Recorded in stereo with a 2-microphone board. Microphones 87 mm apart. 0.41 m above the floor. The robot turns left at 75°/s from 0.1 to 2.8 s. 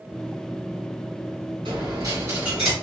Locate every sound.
1.6 s a dropped coin: 100° right, 1.9 m; by 2.7 s straight behind, 1.9 m